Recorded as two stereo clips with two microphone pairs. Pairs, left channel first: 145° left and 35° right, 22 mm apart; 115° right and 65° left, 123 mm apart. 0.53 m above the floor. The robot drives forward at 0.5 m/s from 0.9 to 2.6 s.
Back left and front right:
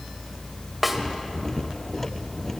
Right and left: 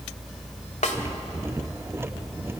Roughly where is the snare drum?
Behind right.